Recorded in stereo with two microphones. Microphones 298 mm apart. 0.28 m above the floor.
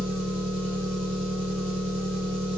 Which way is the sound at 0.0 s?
20° right (ahead or behind).